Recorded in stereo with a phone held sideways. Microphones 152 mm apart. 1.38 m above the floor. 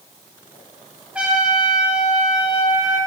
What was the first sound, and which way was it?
A trumpet, 5° right (ahead or behind).